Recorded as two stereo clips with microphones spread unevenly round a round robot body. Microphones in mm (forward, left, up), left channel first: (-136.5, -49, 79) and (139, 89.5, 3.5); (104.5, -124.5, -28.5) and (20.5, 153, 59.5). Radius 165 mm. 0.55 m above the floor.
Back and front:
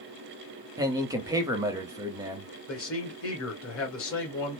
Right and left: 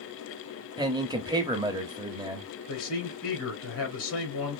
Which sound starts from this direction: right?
A man speaking, at 2.7 s.